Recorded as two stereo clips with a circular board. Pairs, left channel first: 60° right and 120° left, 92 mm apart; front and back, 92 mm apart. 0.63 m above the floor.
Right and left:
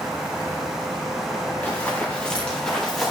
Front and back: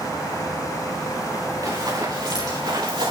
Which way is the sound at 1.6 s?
135° right.